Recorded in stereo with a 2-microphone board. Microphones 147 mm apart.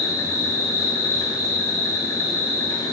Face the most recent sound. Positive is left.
turn(degrees=25)  # may be behind; listen again after turning